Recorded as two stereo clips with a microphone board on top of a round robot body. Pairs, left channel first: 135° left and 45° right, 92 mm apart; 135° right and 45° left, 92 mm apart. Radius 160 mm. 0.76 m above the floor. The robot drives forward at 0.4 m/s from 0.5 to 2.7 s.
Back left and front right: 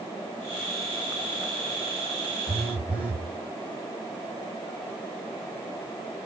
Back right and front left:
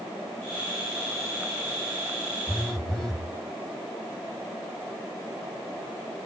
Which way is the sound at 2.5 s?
45° right.